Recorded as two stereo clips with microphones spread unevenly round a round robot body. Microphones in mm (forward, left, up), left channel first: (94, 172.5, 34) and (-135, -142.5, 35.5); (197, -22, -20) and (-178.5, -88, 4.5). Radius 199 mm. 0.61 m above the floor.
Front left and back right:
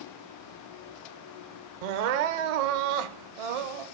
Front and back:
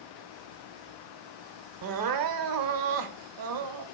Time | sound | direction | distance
1.8 | crying | 135° right | 0.7 m